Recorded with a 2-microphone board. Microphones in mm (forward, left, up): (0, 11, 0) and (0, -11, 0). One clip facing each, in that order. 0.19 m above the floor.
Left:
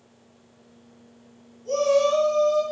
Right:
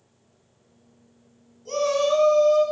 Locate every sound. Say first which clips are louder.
1.6 s a shout: left 2 dB; 25° right (ahead or behind), 1.2 m